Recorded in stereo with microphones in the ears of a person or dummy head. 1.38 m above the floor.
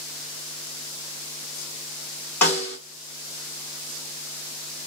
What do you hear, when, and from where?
2.4 s a snare drum: 10° left (ahead or behind), 1.7 m